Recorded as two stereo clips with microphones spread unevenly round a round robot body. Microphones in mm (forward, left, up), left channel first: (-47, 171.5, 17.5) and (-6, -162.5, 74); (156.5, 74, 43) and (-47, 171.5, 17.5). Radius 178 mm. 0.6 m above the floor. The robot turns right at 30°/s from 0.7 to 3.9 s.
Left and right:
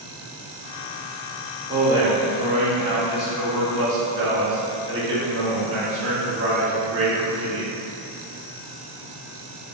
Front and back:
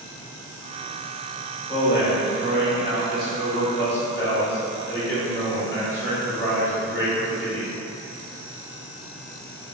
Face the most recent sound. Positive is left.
turn(degrees=-110)